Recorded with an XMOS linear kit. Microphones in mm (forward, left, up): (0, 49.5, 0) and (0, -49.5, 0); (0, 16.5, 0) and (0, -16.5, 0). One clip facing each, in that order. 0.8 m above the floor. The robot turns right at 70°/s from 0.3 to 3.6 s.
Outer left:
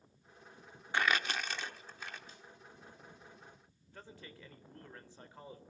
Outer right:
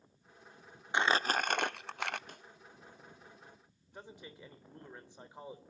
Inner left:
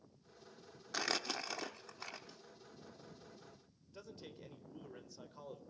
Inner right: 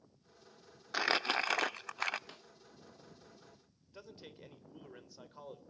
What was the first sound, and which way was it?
Crumpling, 160° right.